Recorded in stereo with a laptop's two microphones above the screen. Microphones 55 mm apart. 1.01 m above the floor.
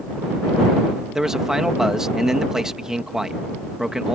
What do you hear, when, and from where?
1.1 s a man speaking: 10° right (ahead or behind)